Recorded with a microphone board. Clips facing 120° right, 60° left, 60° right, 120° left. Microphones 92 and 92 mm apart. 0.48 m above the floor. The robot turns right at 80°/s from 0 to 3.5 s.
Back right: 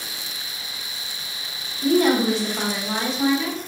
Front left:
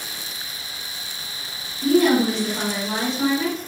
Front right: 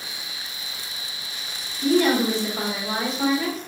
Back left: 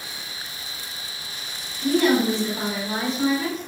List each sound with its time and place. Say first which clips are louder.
1.8 s a woman speaking: front left 1 dB, even; 90° right, 1.7 m; by 3.6 s 50° left, 1.7 m